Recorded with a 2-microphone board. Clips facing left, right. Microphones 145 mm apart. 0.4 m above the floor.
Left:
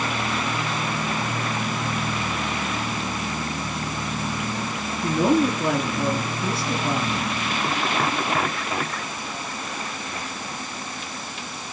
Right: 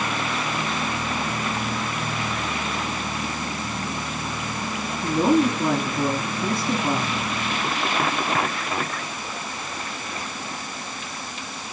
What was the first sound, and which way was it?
A woman speaking, 30° right (ahead or behind).